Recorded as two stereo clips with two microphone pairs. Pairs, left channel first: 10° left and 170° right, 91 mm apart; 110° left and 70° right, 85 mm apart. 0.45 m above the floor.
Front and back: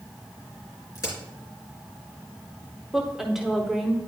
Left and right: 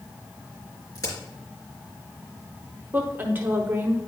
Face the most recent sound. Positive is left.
turn(degrees=-85)